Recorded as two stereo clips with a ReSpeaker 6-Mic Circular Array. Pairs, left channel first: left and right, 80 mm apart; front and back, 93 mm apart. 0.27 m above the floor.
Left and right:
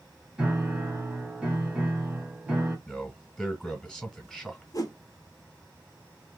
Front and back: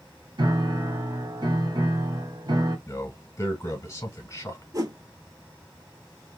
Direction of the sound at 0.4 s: 165° right.